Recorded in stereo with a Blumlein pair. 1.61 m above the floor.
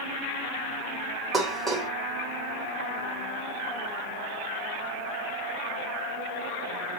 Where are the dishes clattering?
5° left, 2 m.